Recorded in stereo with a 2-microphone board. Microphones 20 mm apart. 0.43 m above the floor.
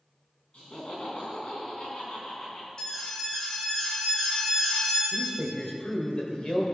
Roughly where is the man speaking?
Left.